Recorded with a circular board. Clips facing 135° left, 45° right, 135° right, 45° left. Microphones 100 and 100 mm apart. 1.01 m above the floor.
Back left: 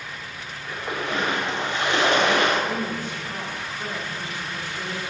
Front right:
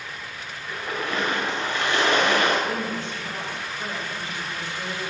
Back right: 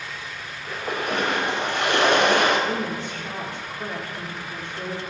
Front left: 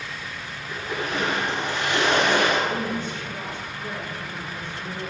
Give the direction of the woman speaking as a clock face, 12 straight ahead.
5 o'clock.